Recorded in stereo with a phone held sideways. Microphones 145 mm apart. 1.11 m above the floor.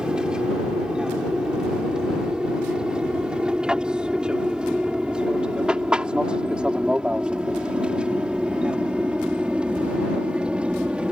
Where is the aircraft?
5° right (ahead or behind).